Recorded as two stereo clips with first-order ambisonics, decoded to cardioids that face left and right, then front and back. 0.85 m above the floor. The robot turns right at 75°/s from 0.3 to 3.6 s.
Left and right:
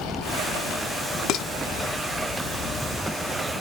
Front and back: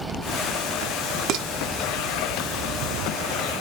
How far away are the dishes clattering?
About 0.5 m.